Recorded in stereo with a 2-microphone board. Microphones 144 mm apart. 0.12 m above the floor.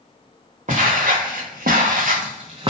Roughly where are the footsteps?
Right.